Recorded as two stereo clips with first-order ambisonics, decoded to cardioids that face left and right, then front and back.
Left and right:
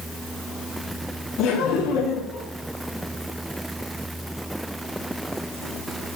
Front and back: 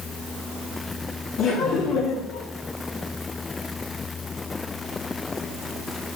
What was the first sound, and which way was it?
Laughter, 50° left.